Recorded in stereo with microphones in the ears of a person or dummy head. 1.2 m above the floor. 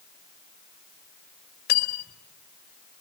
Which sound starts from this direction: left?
Cutlery clinking, at 1.7 s.